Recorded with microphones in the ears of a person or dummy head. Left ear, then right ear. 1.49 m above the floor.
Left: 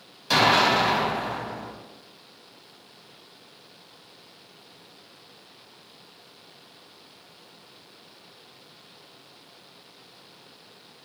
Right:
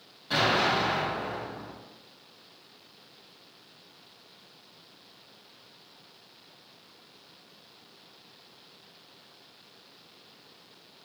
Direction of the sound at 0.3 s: 60° left (ahead or behind).